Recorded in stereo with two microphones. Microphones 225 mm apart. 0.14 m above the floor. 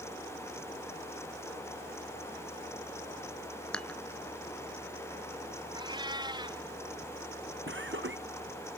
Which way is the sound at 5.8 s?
20° right (ahead or behind).